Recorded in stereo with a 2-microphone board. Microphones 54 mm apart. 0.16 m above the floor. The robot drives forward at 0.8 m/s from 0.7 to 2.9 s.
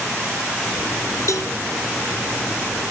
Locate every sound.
1.3 s a cowbell: 70° left (ahead or behind), 1.0 m; by 1.5 s 80° left, 0.9 m